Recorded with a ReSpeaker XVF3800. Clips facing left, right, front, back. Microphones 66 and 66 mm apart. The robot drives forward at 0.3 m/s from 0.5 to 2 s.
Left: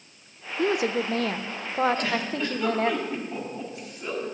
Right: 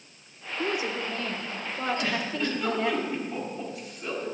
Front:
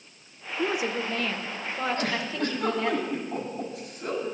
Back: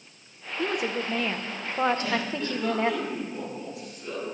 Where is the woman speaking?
80° left, 0.5 m; by 3.0 s 125° left, 0.6 m.